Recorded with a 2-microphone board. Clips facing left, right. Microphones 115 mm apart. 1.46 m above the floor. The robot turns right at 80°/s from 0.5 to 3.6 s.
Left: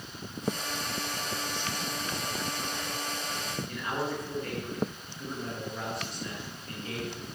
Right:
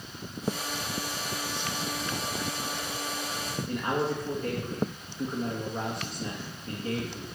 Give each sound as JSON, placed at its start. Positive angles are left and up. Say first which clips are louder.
{"t": 3.7, "sound": "a man speaking", "louder": "right 6 dB", "side_deg": -50, "distance_m": 3.0}